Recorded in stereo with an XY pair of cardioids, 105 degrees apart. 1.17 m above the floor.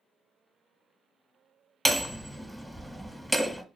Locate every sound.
1.9 s hammering: straight ahead, 0.9 m